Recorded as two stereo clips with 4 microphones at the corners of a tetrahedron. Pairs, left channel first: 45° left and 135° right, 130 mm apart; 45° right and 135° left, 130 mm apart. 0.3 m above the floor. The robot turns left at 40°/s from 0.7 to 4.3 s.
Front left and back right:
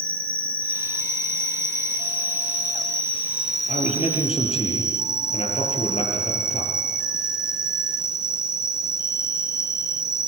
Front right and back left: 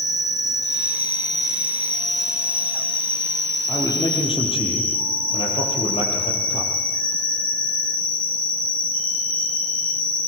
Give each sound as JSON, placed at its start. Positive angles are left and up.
{"t": 0.0, "sound": "an insect", "azimuth_deg": -110, "distance_m": 3.5}
{"t": 3.7, "sound": "a man speaking", "azimuth_deg": 25, "distance_m": 6.0}